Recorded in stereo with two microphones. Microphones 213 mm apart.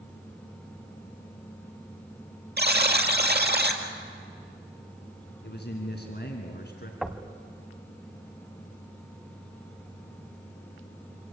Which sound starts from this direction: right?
A buzzer, at 2.6 s.